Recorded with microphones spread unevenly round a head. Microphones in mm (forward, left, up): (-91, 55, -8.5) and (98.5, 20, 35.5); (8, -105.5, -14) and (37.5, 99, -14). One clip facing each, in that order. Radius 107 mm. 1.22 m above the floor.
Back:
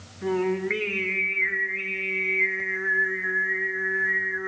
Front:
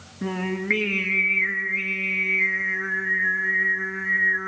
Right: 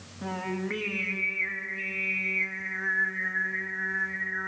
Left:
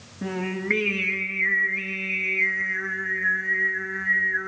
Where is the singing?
25° left, 2 m.